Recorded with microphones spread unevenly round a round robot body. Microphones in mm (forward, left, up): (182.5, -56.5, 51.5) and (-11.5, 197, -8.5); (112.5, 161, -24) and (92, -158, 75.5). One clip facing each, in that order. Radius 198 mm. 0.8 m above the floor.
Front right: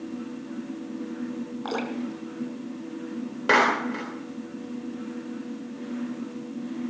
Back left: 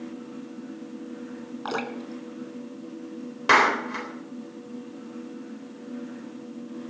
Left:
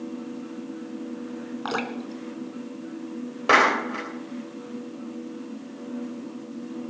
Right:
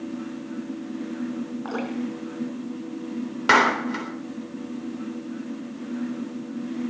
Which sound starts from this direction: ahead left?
Dripping, at 1.6 s.